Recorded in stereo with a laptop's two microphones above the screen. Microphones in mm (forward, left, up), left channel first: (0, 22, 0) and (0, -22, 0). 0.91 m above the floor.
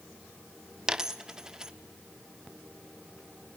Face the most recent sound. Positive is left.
turn(degrees=-15)  # may be behind; listen again after turning